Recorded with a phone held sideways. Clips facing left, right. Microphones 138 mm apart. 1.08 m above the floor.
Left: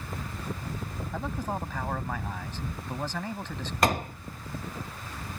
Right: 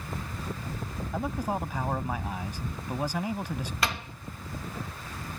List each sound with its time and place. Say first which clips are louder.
1.1 s a man speaking: right 3 dB; 10° right (ahead or behind)
3.8 s a door slam: left 9 dB; 45° left (ahead or behind)